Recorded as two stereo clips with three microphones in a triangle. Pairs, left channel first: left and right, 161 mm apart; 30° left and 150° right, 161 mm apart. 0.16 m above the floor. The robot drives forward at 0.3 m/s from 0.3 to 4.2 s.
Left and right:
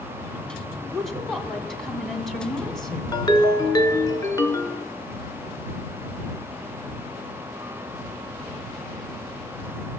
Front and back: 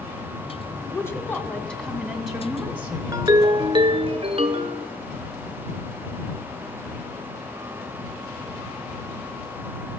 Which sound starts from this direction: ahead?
A woman speaking, at 0.8 s.